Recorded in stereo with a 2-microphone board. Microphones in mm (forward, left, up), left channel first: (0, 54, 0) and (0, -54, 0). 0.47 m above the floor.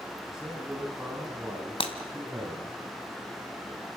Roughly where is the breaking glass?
Left.